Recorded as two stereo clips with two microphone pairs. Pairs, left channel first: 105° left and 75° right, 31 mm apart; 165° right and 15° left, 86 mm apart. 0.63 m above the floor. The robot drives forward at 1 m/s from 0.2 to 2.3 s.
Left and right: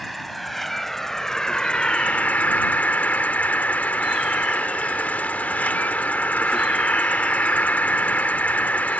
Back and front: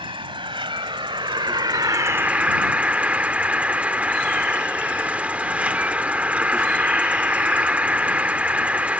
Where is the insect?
20° left; by 9.0 s 90° left.